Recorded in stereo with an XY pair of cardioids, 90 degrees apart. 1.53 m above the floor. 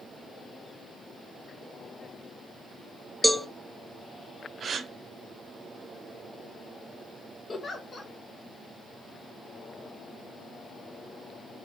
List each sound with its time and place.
3.2 s a cowbell: 5° right, 0.6 m
4.6 s a gasp: 55° right, 0.7 m
7.5 s a giggle: 40° left, 0.8 m